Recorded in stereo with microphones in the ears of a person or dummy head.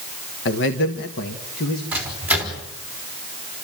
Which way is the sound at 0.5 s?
65° left (ahead or behind).